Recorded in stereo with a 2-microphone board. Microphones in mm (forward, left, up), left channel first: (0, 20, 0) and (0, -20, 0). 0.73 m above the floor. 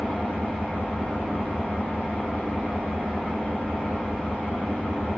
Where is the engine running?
25° left (ahead or behind), 1.8 m.